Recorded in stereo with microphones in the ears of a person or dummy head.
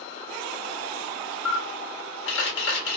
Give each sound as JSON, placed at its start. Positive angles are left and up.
{"t": 1.4, "sound": "a camera shutter", "side_deg": 80, "distance_m": 1.3}